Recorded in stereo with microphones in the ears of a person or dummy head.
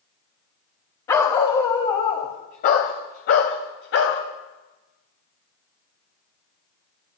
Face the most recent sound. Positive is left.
turn(degrees=70)  # may be behind; listen again after turning